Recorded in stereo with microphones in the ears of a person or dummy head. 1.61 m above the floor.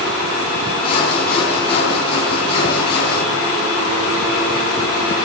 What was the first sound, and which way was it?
Sawing, 35° left (ahead or behind).